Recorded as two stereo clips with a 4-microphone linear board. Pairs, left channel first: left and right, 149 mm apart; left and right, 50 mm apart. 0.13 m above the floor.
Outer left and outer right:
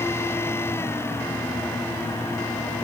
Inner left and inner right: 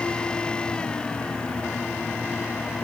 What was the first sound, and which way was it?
Only background noise.